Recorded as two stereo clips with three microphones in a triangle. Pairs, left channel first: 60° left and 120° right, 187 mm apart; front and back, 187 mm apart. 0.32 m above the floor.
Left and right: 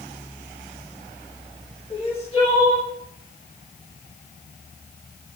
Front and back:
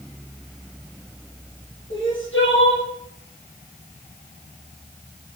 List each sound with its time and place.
1.9 s crying: straight ahead, 6 m